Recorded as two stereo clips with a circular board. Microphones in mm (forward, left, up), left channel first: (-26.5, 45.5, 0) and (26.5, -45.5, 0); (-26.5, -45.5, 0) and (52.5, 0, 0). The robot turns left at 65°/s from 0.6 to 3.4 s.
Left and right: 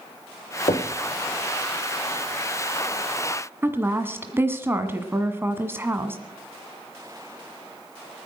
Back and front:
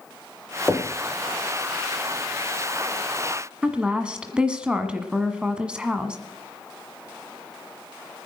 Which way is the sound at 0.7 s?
135° left.